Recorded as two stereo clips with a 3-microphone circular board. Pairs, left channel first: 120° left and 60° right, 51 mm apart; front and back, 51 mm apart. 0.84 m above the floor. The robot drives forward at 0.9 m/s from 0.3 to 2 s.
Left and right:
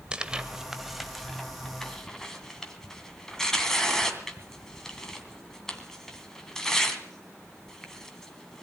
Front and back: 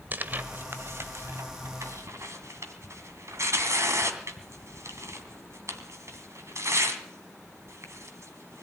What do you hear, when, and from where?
0.1 s tearing paper: 130° right, 1.2 m; by 8.6 s 160° right, 2.5 m